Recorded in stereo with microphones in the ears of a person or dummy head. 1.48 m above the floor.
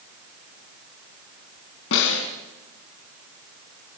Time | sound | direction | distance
1.9 | a snare drum | 70° left (ahead or behind) | 4 m